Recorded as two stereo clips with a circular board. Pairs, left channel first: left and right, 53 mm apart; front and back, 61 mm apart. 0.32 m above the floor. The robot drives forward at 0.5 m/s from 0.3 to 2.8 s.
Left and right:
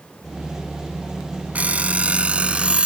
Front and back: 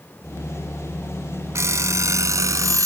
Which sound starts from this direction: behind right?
An alarm clock, at 1.6 s.